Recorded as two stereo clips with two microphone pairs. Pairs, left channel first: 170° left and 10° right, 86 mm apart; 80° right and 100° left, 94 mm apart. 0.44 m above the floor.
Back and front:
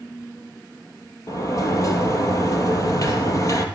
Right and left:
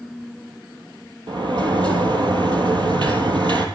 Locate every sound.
1.3 s a sliding door: 125° left, 3 m